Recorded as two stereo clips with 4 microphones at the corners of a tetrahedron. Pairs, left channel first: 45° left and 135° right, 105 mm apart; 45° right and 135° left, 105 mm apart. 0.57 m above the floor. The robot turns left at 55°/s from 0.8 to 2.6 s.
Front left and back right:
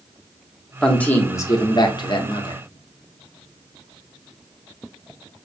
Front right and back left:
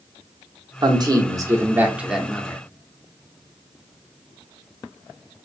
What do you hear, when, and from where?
0.8 s a man speaking: 130° left, 0.8 m; by 2.6 s 30° left, 0.8 m